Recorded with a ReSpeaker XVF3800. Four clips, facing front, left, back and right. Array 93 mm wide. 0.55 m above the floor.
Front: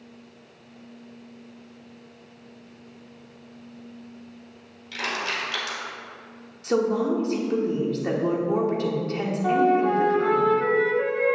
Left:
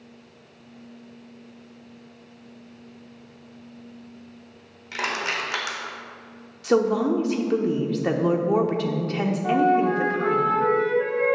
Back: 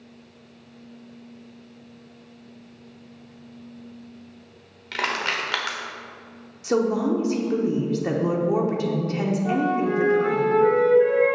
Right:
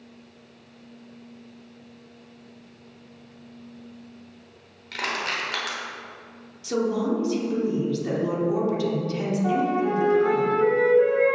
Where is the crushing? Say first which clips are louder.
Left 1 dB, back 3 dB; 165° left, 1.2 m.